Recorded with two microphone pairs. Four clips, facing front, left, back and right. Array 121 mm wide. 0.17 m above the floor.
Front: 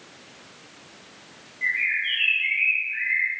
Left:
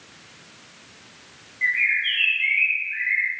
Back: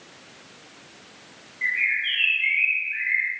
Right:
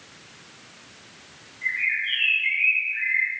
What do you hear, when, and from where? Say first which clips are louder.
1.6 s a bird: left 4 dB, even; 105° left, 6 m